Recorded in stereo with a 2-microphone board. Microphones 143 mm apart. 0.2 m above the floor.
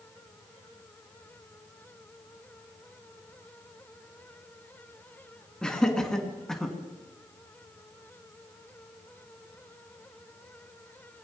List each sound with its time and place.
5.6 s laughter: 5° left (ahead or behind), 3 m